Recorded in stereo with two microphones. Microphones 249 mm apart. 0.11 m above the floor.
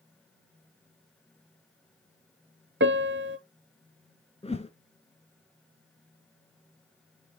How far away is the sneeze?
I don't hear a sneeze.